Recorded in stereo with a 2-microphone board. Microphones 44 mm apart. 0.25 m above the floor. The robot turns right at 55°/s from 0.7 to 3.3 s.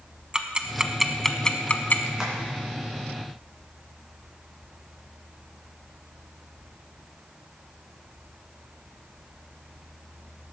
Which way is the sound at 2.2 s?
10° right (ahead or behind).